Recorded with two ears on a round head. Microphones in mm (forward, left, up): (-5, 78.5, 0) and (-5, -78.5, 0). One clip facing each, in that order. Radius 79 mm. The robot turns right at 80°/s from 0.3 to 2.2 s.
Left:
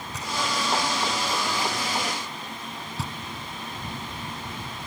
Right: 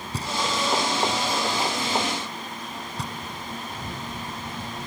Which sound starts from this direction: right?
Knocking, at 0.1 s.